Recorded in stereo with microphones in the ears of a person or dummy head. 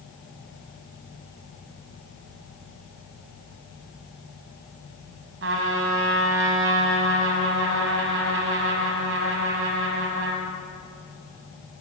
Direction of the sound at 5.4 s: 65° right (ahead or behind).